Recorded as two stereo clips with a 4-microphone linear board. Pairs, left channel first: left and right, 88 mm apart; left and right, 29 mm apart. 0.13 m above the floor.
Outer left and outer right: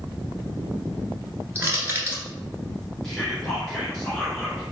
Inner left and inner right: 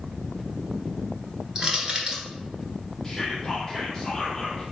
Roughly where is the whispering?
Centre.